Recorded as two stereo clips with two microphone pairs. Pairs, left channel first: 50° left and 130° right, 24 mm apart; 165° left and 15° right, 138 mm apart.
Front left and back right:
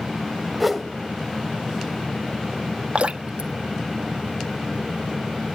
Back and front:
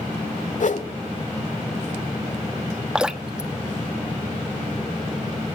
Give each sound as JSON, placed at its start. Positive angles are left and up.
{"t": 0.6, "sound": "a whoosh", "azimuth_deg": 145, "distance_m": 1.2}
{"t": 3.0, "sound": "dripping", "azimuth_deg": -100, "distance_m": 1.1}